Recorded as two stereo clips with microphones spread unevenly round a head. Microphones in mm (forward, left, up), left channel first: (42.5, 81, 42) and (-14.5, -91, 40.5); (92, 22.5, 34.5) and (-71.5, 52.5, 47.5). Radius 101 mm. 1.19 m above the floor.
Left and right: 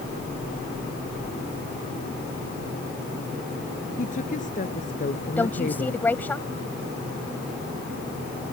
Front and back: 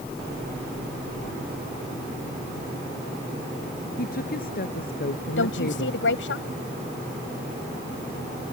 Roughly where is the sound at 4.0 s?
Ahead left.